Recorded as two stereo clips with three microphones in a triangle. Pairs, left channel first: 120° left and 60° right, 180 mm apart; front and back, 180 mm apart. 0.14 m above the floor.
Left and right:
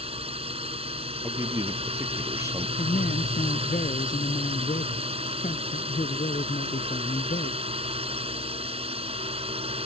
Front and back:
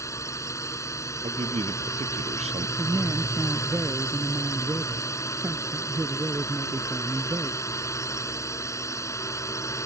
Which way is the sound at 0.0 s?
60° right.